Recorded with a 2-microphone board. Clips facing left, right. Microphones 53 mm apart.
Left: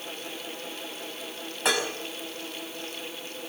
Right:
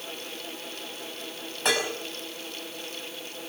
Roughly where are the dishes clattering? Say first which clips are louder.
Even; centre.